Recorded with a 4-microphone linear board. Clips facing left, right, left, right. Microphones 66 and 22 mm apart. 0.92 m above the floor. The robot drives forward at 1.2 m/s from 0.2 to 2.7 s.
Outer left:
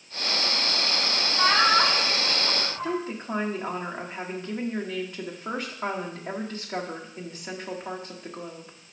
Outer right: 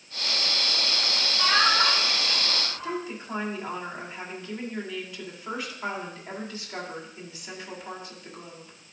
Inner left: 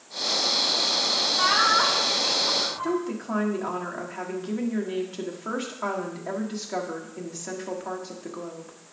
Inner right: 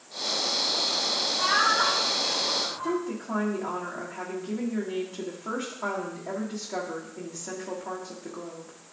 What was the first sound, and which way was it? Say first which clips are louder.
Laughter: outer left 2 dB, inner left 2 dB; 70° left (ahead or behind).